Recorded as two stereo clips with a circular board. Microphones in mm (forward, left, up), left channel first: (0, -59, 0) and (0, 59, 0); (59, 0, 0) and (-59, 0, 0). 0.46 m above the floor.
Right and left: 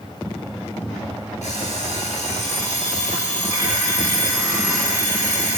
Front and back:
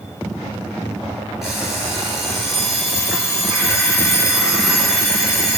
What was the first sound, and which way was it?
An alarm clock, 90° right.